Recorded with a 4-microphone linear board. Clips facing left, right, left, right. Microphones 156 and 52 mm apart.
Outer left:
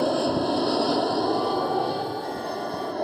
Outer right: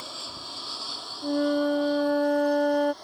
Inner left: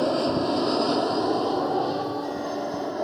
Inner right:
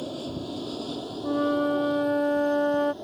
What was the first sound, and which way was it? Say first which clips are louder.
An aircraft: outer left 21 dB, inner left 11 dB; 70° left (ahead or behind).